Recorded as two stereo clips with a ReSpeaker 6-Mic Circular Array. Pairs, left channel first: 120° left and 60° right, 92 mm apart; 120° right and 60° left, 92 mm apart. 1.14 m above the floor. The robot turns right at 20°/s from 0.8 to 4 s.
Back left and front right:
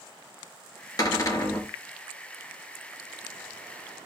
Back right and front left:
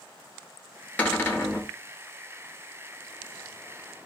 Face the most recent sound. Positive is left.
turn(degrees=-135)